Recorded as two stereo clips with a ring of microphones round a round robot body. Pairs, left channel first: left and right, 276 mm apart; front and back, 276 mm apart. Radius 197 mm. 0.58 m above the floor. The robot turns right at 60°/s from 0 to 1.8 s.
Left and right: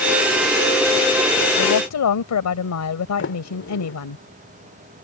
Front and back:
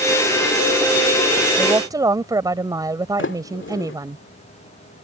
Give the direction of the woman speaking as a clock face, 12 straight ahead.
9 o'clock.